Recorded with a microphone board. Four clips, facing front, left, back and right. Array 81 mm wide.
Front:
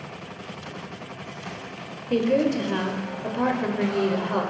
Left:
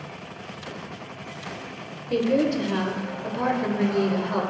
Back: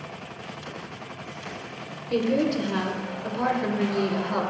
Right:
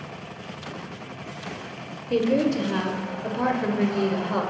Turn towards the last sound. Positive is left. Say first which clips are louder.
# even, front 2 dB
turn(degrees=-20)